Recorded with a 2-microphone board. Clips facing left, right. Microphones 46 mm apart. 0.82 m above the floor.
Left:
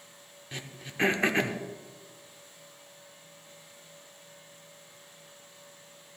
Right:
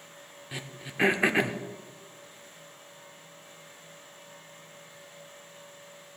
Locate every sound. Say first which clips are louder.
0.5 s throat clearing: right 2 dB; 5° right (ahead or behind), 0.7 m